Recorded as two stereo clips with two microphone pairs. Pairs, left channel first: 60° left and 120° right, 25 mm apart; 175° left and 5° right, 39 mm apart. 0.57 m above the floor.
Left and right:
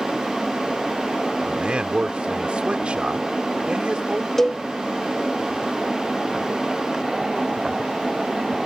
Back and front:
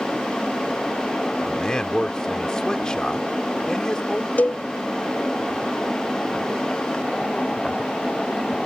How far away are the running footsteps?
No running footsteps in this recording.